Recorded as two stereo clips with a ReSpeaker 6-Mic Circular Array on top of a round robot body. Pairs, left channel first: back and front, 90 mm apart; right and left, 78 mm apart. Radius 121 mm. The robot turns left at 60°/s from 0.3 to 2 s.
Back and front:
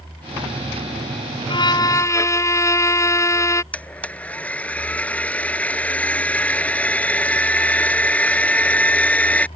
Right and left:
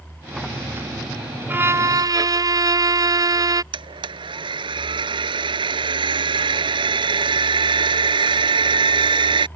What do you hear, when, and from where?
1.5 s a violin: 155° left; by 3.6 s 125° left
3.7 s a blender: 105° left